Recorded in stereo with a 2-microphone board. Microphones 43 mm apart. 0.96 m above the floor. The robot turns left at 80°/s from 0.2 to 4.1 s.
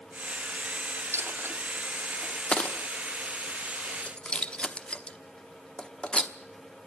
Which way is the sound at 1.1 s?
75° right (ahead or behind).